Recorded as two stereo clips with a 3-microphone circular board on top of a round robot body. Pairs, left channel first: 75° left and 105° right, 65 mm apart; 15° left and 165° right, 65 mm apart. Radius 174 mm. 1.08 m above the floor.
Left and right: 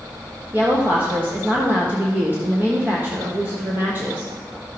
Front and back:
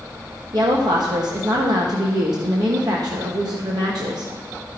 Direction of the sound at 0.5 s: 165° right.